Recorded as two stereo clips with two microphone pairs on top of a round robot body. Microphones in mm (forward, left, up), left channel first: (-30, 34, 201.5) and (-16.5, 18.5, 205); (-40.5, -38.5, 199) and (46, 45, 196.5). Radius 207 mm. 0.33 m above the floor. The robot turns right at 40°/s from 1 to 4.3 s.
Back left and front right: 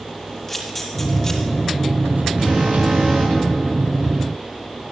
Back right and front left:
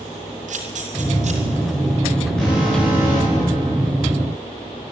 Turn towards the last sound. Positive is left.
turn(degrees=25)